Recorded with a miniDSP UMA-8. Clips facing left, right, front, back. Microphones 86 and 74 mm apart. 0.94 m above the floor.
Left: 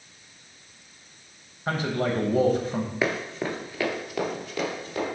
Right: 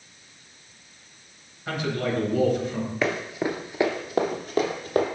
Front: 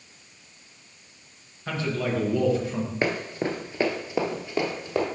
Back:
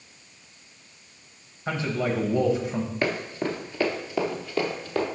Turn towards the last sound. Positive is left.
turn(degrees=-65)